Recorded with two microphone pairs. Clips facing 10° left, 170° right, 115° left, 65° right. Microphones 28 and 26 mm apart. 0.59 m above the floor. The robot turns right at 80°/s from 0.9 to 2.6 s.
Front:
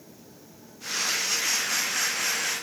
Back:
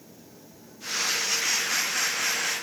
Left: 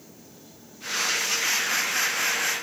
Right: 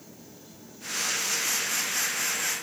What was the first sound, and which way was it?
Only background noise.